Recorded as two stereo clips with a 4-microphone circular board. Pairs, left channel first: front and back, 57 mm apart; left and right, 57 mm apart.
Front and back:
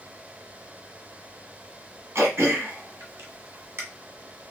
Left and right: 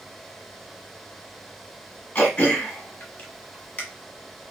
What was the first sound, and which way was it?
Throat clearing, 155° left.